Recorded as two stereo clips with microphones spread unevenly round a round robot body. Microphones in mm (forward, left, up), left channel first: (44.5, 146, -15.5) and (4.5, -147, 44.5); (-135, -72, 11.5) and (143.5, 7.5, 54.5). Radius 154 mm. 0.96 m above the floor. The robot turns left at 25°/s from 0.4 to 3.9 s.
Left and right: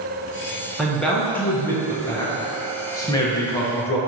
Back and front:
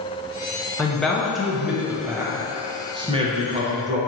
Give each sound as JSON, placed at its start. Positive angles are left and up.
{"t": 0.8, "sound": "a man speaking", "azimuth_deg": 140, "distance_m": 0.7}